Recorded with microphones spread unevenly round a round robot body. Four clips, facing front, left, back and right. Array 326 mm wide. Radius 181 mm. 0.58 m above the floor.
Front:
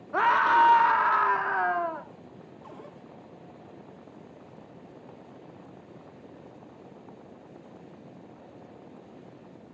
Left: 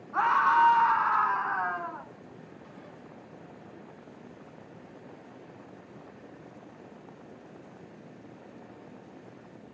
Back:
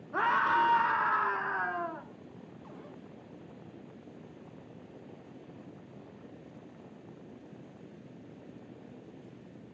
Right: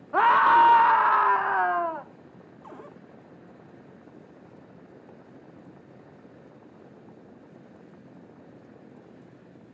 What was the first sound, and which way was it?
A scream, 60° right.